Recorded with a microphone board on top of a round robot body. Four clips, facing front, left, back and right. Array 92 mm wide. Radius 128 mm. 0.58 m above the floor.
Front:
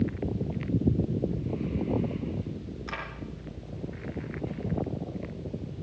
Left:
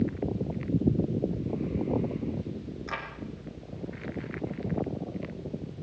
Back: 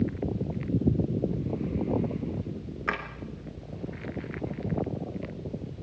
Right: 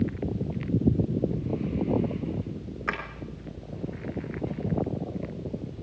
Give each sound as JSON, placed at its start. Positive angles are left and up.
{"t": 2.9, "sound": "a drawer", "azimuth_deg": -135, "distance_m": 3.5}